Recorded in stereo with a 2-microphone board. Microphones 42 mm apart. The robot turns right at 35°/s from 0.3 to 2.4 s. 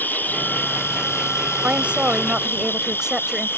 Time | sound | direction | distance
0.0 | an insect | 45° left | ?
1.6 | a woman speaking | 35° right (ahead or behind) | ?